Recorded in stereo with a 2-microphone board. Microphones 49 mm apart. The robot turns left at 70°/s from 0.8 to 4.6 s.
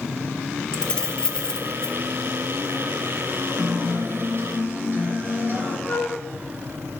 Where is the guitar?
45° right, 2.5 m; by 5.8 s 120° right, 2.5 m.